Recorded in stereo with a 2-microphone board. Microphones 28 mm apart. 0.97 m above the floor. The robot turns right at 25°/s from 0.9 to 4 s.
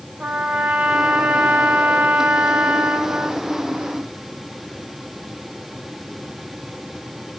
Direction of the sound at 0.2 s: 120° right.